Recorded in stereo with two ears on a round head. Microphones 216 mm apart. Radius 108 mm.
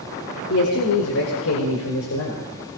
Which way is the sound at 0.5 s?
65° left (ahead or behind).